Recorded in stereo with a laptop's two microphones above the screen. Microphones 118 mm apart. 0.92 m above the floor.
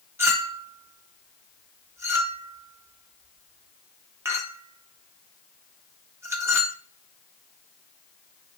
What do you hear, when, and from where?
0.2 s a clink: 20° right (ahead or behind), 0.9 m